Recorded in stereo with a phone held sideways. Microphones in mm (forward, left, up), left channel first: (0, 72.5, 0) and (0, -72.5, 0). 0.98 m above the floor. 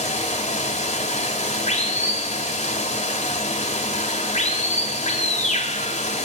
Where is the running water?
50° left (ahead or behind), 1.6 m.